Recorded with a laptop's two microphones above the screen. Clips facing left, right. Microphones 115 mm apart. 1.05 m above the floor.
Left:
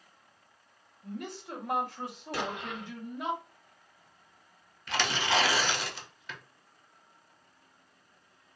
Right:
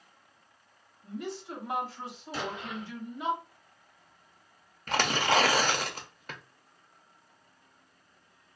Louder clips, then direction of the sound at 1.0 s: Right 2 dB; 55° left (ahead or behind).